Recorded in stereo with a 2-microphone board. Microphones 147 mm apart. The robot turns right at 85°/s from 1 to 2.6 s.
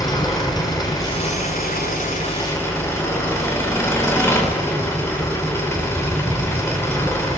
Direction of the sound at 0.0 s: 25° left.